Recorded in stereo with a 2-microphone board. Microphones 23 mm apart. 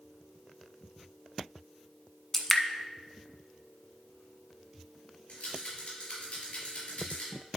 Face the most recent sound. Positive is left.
turn(degrees=75)  # may be behind; listen again after turning